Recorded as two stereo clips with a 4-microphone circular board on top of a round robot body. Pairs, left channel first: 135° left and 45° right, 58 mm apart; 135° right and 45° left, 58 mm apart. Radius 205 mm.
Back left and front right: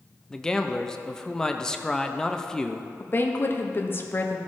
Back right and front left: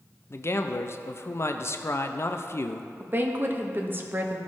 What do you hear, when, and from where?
0.3 s a man speaking: 150° right, 0.8 m
3.0 s a woman speaking: 95° left, 1.3 m